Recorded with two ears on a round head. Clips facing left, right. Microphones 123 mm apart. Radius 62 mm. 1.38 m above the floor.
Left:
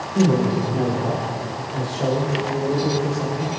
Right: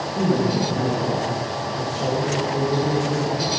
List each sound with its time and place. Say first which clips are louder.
0.1 s a man speaking: left 2 dB; 55° left (ahead or behind), 5.5 m; by 3.5 s 10° left (ahead or behind), 7.5 m